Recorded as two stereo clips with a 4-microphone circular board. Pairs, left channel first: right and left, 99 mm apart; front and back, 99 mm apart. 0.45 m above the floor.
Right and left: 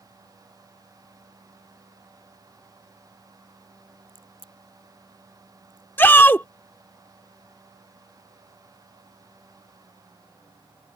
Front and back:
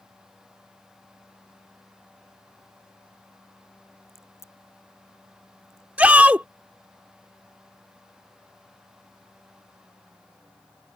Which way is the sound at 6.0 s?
125° right.